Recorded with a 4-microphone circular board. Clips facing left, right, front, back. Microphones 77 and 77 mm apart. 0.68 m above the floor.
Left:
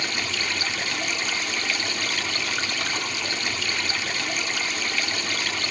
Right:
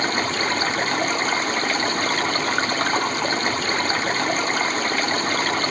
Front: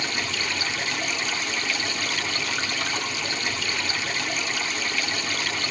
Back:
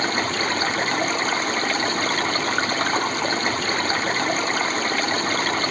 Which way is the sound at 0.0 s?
135° right.